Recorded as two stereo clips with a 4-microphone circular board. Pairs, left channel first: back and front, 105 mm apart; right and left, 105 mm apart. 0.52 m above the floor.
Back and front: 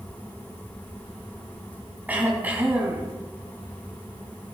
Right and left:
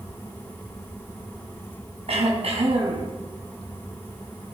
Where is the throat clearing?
75° left, 2.5 m.